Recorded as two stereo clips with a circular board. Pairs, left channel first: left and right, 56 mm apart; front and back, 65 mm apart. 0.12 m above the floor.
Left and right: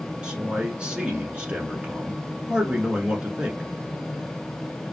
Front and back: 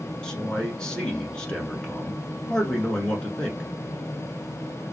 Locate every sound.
0.2 s a man speaking: 55° right, 1.2 m